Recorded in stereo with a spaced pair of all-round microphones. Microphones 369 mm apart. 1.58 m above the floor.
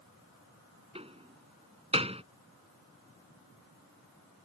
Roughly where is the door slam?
Centre.